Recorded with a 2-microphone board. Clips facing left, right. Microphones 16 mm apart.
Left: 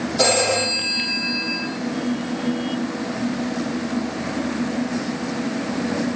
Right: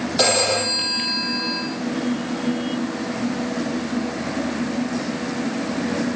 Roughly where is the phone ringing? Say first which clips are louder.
Even; right.